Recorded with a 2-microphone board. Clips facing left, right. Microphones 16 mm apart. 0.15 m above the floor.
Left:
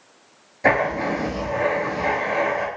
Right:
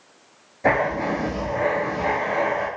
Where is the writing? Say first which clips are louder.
Left 1 dB; 30° left (ahead or behind), 0.9 m.